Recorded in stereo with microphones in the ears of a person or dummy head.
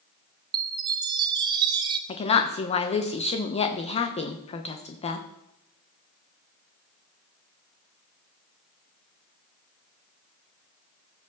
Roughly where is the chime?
Right.